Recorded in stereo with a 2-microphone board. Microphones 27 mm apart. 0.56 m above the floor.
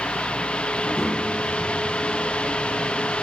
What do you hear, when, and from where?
0.7 s a child speaking: 10° right (ahead or behind), 2.5 m; by 3.1 s 40° left (ahead or behind), 4.5 m